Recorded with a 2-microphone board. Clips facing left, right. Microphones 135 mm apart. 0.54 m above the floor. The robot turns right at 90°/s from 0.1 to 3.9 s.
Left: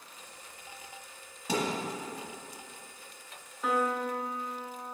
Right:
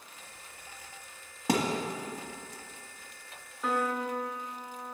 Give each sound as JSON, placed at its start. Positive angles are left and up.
{"t": 1.5, "sound": "a thud", "side_deg": -80, "distance_m": 1.2}
{"t": 3.6, "sound": "a piano", "side_deg": 0, "distance_m": 0.7}